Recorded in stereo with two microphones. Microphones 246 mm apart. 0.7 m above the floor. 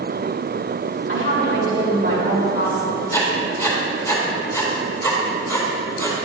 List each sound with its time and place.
1.1 s a woman speaking: 50° right (ahead or behind), 2 m
3.1 s writing: 10° left (ahead or behind), 2.5 m